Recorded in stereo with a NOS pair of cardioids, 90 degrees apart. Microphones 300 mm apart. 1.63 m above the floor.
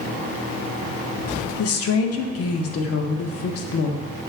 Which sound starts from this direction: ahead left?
A woman speaking, at 1.6 s.